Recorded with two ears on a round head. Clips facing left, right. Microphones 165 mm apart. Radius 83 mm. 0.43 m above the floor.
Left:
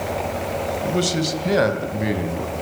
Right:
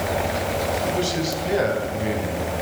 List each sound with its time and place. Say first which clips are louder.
0.8 s a man speaking: left 2 dB; 60° left (ahead or behind), 2.5 m; by 2.5 s 70° left (ahead or behind), 4 m